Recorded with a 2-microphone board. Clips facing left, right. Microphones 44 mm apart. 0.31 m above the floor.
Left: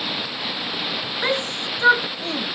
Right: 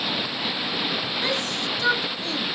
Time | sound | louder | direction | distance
1.2 | a shout | left 2 dB | 30° left (ahead or behind) | ?